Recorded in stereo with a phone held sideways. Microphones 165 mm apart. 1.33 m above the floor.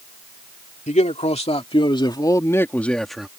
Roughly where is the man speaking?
Left.